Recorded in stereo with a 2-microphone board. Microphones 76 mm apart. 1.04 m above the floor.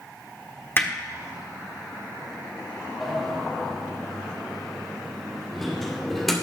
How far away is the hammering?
About 1.2 m.